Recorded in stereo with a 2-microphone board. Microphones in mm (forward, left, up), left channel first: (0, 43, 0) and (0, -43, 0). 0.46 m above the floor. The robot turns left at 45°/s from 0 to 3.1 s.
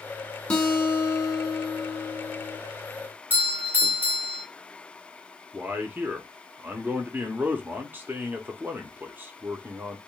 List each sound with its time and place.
0.5 s a guitar: 160° left, 1.2 m; by 2.6 s 65° left, 1.2 m
3.3 s a doorbell: 20° right (ahead or behind), 1.1 m
5.5 s a man speaking: 25° right (ahead or behind), 0.9 m